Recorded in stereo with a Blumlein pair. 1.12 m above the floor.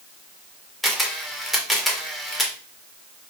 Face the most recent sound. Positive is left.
turn(degrees=0)